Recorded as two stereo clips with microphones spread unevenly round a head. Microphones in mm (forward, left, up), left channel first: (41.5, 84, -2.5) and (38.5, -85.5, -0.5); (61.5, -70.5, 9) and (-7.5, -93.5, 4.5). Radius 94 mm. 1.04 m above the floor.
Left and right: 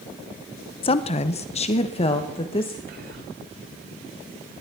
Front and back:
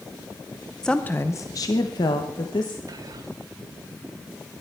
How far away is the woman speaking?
About 0.6 m.